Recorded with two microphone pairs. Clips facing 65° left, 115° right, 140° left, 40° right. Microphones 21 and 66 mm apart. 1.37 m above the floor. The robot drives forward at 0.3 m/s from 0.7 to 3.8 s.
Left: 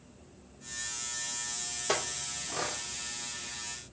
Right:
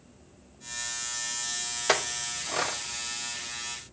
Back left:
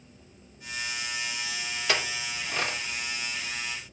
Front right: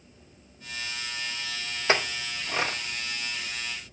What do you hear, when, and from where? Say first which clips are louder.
1.9 s a clink: right 6 dB, front right 4 dB; 95° right, 0.8 m; by 2.8 s 115° right, 0.9 m